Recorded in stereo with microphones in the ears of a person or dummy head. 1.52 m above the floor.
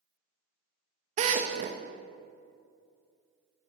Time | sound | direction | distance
1.2 | a drill | 40° right (ahead or behind) | 1.3 m